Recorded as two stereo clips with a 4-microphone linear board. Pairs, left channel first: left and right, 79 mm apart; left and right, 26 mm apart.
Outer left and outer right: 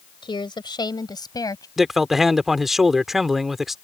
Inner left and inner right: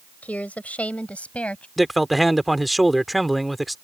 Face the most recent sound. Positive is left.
turn(degrees=-5)  # may be behind; listen again after turning